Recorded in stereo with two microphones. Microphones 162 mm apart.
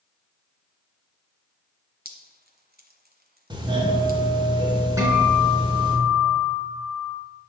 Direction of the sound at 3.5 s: 30° right (ahead or behind).